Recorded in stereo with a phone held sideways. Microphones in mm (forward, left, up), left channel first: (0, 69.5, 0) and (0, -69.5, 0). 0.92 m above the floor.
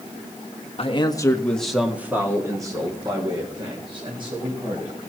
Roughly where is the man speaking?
Left.